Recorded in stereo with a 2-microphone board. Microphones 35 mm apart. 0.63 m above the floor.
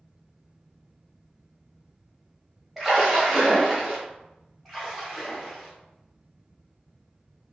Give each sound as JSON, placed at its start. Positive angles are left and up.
{"t": 2.8, "sound": "a splash", "side_deg": -5, "distance_m": 1.2}
{"t": 4.7, "sound": "a splash", "side_deg": 5, "distance_m": 1.5}